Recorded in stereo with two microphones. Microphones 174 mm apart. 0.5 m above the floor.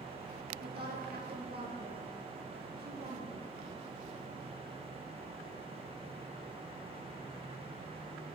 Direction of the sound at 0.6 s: 75° right (ahead or behind).